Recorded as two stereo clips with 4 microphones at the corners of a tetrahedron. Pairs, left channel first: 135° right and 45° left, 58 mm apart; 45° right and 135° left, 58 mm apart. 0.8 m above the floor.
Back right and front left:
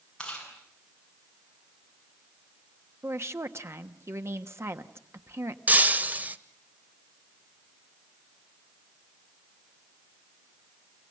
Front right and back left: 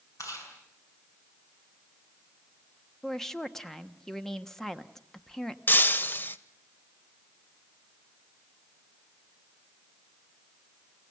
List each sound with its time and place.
0.2 s chewing: 60° right, 7 m
3.0 s a woman speaking: 35° left, 1.2 m
5.7 s breaking glass: 5° right, 0.8 m